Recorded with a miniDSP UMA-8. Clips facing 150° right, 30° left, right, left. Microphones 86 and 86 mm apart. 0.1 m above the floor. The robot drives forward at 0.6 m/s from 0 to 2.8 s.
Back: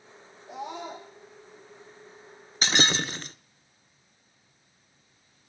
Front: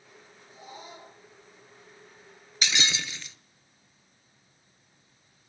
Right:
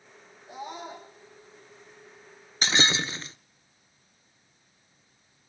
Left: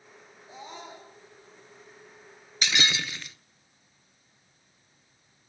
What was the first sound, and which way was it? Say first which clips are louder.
A scream: back 10 dB, right 5 dB; 165° right.